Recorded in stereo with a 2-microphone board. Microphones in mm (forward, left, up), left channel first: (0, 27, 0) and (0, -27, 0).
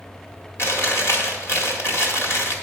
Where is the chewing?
55° left (ahead or behind), 1.7 m.